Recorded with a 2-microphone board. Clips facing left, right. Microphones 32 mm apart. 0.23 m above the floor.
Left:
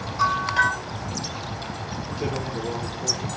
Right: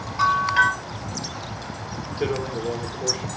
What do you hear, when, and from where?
0.2 s a bell: 20° right (ahead or behind), 3.5 m
2.2 s a man speaking: 45° right (ahead or behind), 3 m